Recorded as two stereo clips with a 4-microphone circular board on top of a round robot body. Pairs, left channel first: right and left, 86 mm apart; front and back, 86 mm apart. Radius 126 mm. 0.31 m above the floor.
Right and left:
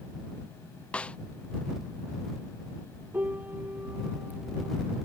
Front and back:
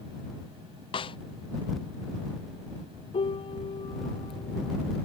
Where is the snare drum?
15° right.